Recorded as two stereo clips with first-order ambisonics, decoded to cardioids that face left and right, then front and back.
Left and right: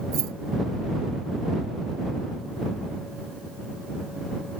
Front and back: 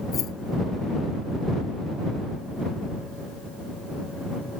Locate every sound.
0.1 s keys jangling: 55° right